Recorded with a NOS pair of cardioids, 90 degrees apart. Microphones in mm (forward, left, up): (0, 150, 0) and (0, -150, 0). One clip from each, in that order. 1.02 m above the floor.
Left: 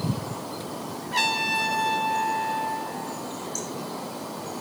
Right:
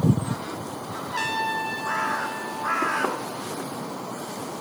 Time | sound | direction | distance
1.1 | a trumpet | 35° left | 8 m